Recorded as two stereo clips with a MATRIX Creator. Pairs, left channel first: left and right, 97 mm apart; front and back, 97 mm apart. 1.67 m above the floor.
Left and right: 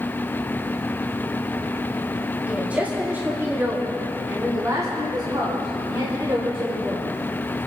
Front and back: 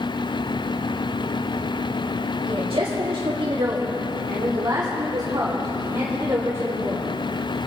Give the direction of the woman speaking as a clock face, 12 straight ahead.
6 o'clock.